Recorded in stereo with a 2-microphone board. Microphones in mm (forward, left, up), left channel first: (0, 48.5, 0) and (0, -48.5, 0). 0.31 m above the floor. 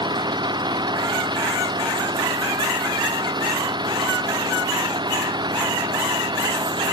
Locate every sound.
0.0 s an engine running: 50° right (ahead or behind)